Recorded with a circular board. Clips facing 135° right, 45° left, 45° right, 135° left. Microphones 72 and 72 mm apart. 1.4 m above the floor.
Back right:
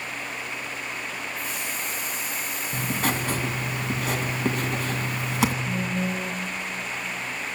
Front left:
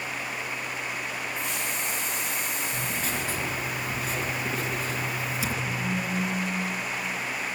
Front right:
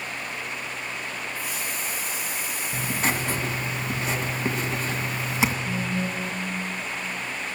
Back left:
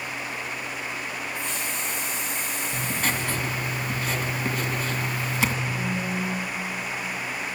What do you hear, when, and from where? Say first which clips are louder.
1.4 s a hiss: even, back left 1 dB; 35° left, 7.5 m
2.7 s writing: back right 9 dB, front right 2 dB; 110° right, 2.5 m
5.7 s a phone buzzing: back right 2 dB, even; 100° right, 1.9 m